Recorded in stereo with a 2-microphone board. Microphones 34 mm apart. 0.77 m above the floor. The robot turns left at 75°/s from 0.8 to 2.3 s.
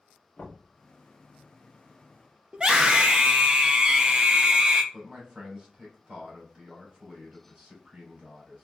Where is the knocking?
50° left (ahead or behind), 1.9 m.